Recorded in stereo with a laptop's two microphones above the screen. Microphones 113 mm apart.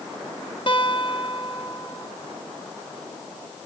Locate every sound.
0.7 s a guitar: 45° left (ahead or behind), 3 m